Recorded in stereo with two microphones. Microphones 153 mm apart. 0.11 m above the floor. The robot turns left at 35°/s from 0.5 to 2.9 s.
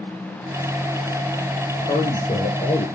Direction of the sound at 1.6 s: 115° left.